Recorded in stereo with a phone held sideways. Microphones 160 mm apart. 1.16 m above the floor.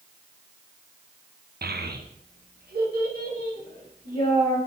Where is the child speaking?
85° right, 0.6 m; by 4.6 s 70° right (ahead or behind), 3 m.